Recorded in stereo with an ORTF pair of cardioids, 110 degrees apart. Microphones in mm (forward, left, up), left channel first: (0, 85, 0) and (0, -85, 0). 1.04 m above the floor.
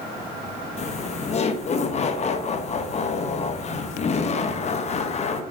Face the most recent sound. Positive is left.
turn(degrees=40)